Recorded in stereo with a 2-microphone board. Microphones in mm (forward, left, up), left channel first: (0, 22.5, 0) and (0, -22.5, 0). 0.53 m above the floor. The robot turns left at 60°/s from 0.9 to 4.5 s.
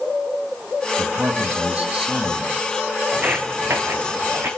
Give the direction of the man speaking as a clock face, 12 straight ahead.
4 o'clock.